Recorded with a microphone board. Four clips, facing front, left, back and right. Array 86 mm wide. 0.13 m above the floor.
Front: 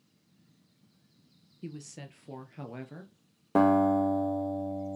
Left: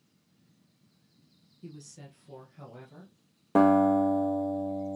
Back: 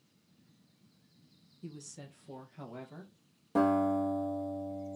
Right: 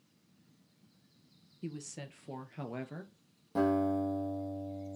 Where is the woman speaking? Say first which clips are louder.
Right 4 dB, front 4 dB; 35° right, 2.5 m; by 3.1 s 60° right, 2.5 m.